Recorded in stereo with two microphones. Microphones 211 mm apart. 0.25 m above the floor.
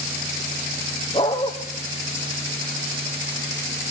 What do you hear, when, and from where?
1.1 s a dog barking: 25° left (ahead or behind), 3 m